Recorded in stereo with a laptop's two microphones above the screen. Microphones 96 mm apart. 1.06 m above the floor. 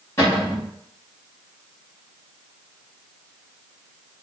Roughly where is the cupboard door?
Left.